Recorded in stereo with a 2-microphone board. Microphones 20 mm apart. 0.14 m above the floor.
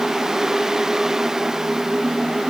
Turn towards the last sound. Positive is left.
No sound to turn to.